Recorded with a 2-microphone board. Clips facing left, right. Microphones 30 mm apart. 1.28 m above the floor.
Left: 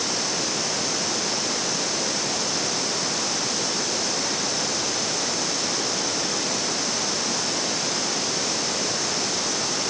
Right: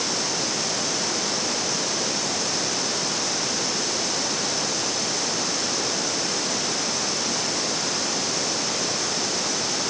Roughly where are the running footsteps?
No running footsteps in this recording.